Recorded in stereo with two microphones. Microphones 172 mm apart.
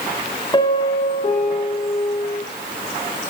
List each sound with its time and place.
0.5 s a piano: 25° left (ahead or behind), 5.5 m